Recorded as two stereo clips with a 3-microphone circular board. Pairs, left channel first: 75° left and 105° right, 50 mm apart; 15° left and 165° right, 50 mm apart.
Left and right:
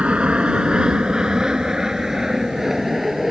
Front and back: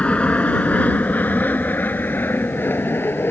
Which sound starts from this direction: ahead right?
An aircraft, at 0.0 s.